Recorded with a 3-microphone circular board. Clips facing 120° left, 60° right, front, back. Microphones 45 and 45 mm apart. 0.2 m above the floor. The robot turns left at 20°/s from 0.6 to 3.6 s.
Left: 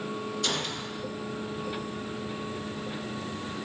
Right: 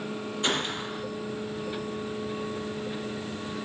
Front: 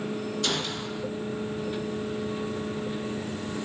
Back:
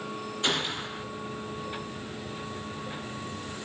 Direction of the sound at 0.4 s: 115° right.